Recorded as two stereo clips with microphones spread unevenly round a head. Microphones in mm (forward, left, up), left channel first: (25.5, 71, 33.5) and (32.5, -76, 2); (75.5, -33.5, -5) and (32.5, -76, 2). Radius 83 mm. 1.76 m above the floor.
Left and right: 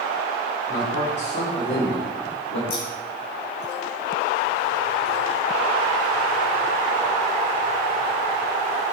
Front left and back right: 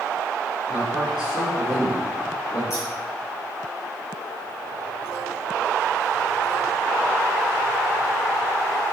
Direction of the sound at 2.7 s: 110° left.